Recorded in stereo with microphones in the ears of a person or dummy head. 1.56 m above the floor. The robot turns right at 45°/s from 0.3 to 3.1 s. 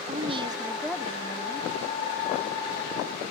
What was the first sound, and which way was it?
A woman speaking, 35° right.